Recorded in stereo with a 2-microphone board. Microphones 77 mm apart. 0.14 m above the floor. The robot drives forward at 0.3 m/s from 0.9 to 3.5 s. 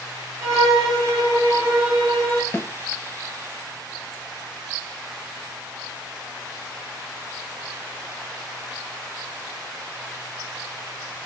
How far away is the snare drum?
About 0.6 m.